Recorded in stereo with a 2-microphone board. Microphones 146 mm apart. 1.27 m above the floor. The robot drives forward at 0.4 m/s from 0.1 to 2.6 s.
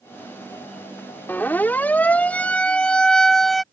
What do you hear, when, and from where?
1.3 s a siren: 15° left (ahead or behind); by 3.6 s centre (ahead or behind)